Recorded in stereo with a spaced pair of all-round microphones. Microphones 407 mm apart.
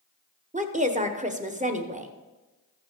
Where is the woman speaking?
20° right (ahead or behind), 1.0 m.